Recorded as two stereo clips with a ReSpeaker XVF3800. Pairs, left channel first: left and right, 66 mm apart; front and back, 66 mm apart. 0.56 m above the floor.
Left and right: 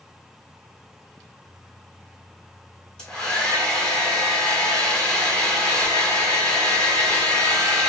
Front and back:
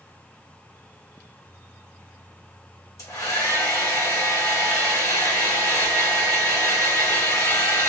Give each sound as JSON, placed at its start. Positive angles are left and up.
{"t": 3.0, "sound": "a hair dryer", "azimuth_deg": 15, "distance_m": 1.5}